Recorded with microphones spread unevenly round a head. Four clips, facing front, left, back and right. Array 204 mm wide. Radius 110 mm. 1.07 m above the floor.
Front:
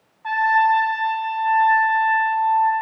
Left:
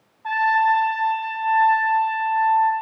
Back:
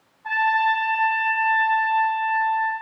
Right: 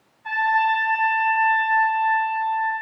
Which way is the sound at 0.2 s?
20° right.